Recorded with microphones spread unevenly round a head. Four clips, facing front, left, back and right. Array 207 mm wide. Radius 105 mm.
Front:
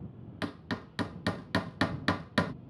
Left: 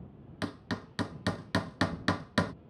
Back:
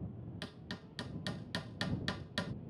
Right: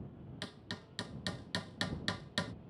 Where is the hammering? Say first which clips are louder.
Left 13 dB, front 16 dB; 40° left.